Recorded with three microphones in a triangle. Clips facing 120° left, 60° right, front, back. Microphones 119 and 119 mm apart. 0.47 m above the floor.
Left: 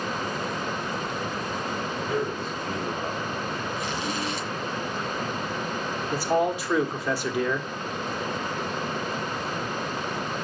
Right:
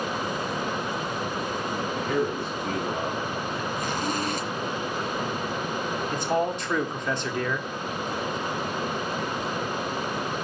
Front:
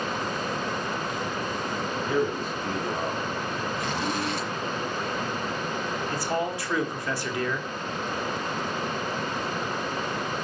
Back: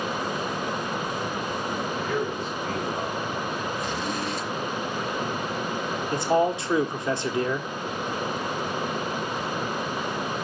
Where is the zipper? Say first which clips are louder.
Right 2 dB, even; 20° right, 1.8 m.